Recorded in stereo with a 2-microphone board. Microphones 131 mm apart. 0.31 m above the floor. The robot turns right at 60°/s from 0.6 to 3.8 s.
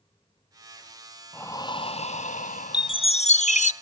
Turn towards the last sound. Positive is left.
turn(degrees=100)